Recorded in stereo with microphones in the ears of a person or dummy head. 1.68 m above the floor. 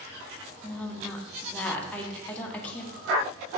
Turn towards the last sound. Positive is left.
turn(degrees=10)  # may be behind; listen again after turning